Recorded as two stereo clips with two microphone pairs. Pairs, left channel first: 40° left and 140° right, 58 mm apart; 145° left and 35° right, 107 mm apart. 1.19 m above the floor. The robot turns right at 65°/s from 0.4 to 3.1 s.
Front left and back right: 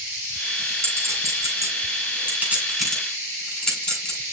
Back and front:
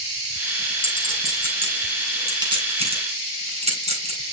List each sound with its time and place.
0.8 s a clink: 175° left, 5 m; by 4.3 s 40° right, 5 m